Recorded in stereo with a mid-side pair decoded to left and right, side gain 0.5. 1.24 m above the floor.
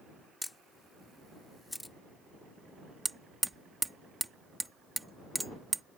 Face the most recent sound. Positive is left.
turn(degrees=-15)